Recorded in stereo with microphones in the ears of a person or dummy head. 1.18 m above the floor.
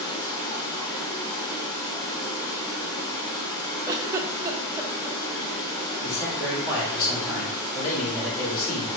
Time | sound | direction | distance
0.0 | running water | 20° left (ahead or behind) | 1.8 m
3.9 | a giggle | 20° right (ahead or behind) | 0.5 m
6.0 | a man speaking | 55° left (ahead or behind) | 2.5 m